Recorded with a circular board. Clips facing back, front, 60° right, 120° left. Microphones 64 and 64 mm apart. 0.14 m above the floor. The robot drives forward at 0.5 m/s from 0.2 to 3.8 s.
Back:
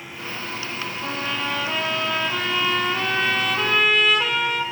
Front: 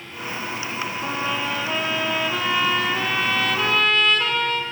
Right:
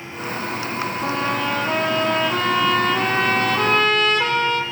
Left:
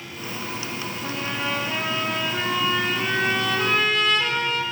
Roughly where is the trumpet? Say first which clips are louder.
Front 1 dB, right 5 dB; right.